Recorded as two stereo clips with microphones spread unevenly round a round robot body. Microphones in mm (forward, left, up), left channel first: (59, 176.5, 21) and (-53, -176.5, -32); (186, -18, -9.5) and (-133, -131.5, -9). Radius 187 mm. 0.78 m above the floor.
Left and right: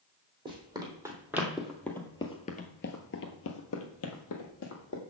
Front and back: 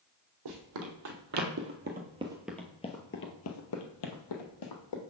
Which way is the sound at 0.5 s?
170° left.